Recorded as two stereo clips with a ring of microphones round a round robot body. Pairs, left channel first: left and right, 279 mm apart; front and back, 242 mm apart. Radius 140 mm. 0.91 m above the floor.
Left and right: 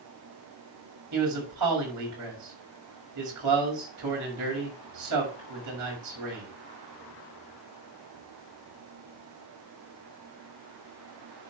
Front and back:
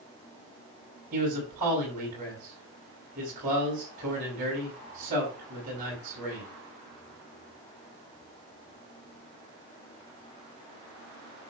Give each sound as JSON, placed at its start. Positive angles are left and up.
{"t": 1.1, "sound": "a man speaking", "azimuth_deg": -115, "distance_m": 6.0}